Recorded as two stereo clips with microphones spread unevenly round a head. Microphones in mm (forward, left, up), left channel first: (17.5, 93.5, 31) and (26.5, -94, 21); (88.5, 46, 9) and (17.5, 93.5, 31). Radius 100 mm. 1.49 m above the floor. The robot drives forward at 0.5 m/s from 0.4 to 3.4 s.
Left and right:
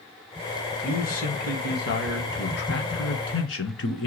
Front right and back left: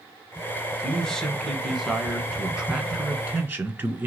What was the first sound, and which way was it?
A man speaking, 45° left.